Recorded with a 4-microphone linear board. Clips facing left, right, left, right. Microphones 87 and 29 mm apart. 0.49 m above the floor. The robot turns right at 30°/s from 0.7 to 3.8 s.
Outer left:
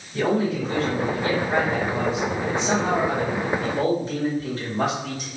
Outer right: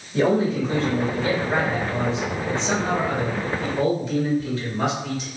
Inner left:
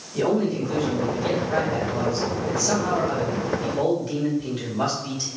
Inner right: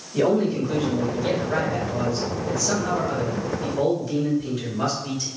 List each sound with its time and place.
0.1 s a man speaking: 35° right, 1.9 m; by 5.3 s 55° left, 1.9 m